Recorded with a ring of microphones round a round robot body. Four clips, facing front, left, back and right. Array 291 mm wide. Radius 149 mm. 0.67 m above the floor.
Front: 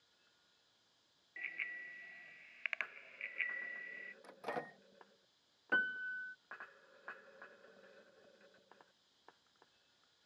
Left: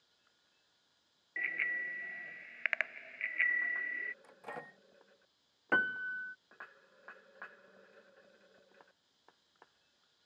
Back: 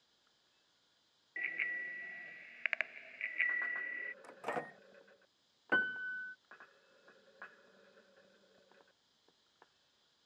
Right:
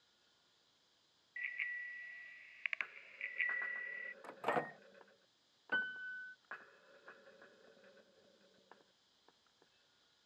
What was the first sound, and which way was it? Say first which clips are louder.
A bicycle bell: left 7 dB, back 6 dB; 115° left.